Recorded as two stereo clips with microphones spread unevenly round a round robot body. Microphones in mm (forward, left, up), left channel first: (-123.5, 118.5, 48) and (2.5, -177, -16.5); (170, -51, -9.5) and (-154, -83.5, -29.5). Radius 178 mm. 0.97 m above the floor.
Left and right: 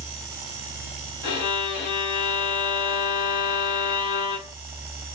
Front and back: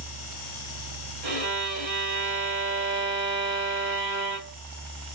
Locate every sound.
1.2 s a violin: 125° left, 1.3 m